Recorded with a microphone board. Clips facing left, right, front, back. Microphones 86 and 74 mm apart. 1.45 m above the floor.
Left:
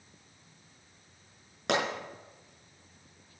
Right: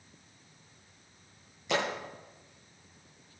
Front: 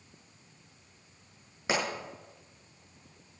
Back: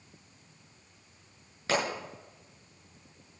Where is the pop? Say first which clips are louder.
Left 2 dB, back 1 dB; 75° left, 7 m.